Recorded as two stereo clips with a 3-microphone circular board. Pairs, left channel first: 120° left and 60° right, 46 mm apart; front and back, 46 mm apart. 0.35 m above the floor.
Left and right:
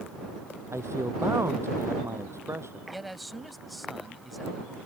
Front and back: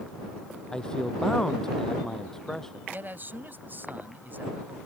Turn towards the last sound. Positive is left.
turn(degrees=-150)